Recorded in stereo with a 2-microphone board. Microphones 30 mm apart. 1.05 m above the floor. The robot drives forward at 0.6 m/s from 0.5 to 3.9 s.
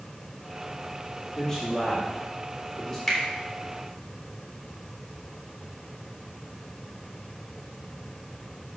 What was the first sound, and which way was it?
A man speaking, 20° left (ahead or behind).